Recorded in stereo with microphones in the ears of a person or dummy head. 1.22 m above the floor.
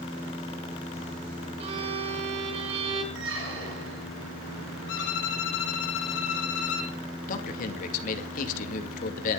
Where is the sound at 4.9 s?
70° left (ahead or behind), 3 m.